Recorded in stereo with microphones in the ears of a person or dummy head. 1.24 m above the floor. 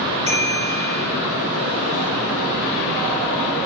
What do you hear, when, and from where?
0.3 s a bicycle bell: 25° right (ahead or behind), 5.5 m